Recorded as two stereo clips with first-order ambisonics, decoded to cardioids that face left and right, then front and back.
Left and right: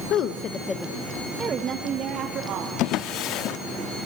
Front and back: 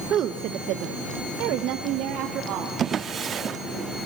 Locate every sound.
0.1 s a woman speaking: 130° left, 1.2 m; by 2.7 s 135° right, 2.5 m
2.8 s a drawer: 120° left, 0.9 m